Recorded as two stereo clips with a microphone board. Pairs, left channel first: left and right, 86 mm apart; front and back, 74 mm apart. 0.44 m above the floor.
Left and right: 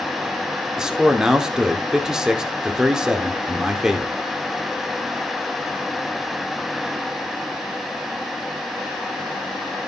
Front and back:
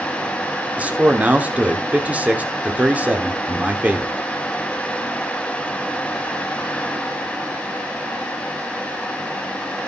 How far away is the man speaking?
About 1.0 m.